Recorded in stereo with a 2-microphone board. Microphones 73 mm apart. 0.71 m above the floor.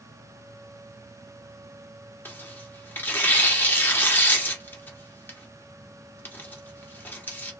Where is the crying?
No crying in this recording.